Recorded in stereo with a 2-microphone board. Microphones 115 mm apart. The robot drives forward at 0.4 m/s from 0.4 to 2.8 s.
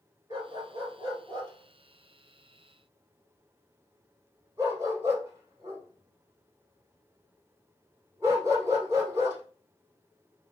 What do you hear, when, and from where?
0.3 s a dog barking: 40° right (ahead or behind), 1.5 m; by 9.4 s 25° right (ahead or behind), 2.5 m